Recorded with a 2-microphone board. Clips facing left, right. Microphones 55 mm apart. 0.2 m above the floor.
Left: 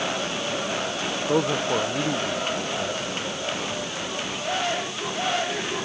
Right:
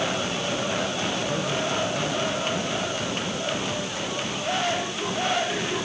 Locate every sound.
1.3 s a man speaking: 70° left (ahead or behind)